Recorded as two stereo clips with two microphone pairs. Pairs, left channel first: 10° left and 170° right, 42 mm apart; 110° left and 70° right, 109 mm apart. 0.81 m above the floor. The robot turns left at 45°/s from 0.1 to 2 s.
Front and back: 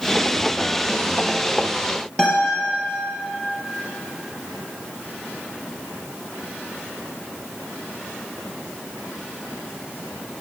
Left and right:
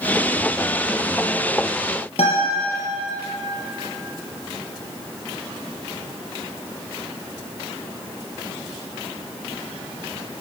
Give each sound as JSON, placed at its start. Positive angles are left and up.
{"t": 2.2, "sound": "a guitar", "azimuth_deg": 85, "distance_m": 4.0}